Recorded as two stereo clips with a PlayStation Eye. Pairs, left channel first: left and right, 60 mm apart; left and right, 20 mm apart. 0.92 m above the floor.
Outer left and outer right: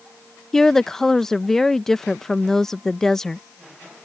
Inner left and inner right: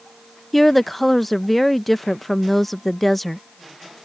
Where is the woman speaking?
10° left (ahead or behind).